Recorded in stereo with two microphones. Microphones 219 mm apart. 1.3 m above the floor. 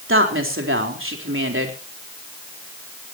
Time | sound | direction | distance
0.1 | a woman speaking | 65° right (ahead or behind) | 3.5 m